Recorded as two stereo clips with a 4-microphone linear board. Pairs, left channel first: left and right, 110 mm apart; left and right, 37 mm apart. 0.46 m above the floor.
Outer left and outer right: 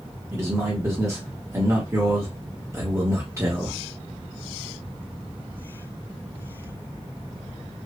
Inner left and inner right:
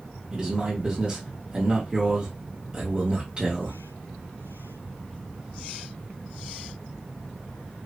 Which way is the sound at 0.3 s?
30° right (ahead or behind).